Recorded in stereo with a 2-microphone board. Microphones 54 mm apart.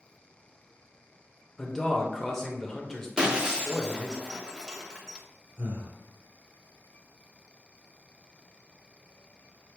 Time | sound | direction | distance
1.6 | a man speaking | 10° left (ahead or behind) | 0.9 m
3.2 | breaking glass | 20° right (ahead or behind) | 0.8 m
5.6 | breathing | 60° right (ahead or behind) | 2 m